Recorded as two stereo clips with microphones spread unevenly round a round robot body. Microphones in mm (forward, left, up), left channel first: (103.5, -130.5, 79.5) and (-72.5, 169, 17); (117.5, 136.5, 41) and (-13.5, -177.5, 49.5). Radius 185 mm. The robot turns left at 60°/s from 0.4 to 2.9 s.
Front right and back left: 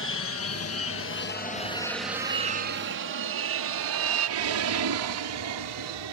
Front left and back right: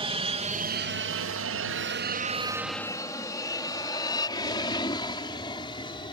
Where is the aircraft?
60° right; by 6.1 s 145° left.